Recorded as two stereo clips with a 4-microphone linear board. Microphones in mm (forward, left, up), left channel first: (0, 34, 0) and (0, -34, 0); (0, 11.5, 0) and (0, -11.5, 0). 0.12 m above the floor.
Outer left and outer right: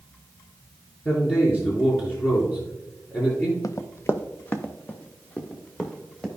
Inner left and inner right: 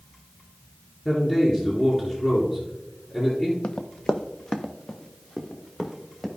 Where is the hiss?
I don't hear a hiss.